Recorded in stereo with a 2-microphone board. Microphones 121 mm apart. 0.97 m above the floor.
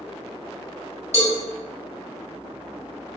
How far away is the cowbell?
About 1.8 m.